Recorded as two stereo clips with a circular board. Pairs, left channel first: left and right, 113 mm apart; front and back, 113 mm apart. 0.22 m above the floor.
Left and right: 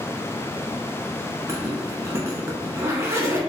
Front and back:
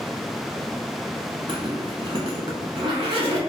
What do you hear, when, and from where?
1.5 s a zipper: 150° right, 0.9 m